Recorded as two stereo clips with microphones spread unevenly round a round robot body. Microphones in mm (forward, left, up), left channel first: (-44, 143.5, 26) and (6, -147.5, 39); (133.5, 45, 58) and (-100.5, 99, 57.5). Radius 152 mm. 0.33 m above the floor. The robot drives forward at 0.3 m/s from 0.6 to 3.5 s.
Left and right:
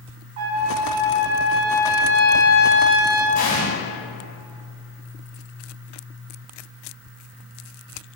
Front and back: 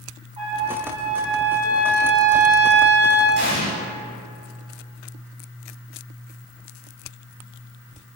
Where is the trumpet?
120° right, 0.6 m; by 3.2 s 155° right, 1.2 m.